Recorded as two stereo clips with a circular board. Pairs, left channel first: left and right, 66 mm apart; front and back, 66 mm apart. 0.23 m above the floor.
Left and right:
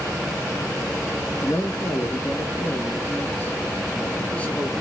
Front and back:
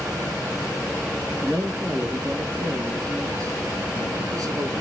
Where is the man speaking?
120° left, 3 m; by 4.8 s 165° left, 2.5 m.